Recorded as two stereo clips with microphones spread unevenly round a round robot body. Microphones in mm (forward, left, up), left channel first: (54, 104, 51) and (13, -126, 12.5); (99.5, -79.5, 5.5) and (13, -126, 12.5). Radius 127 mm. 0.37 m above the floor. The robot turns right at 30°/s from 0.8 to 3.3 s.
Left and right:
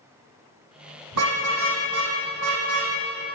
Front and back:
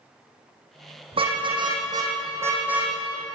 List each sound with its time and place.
1.1 s a car horn: 130° right, 7 m; by 2.9 s 75° right, 7 m